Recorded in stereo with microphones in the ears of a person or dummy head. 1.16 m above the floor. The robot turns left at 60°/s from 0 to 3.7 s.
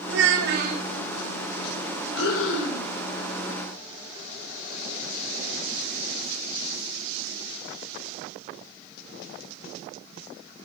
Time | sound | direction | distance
0.1 | a child speaking | 95° right | 1.2 m
2.1 | breathing | 105° left | 2 m